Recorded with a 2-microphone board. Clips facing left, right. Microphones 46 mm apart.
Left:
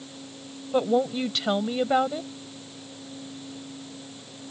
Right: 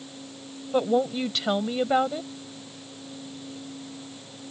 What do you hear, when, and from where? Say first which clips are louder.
0.7 s a woman speaking: even; centre (ahead or behind)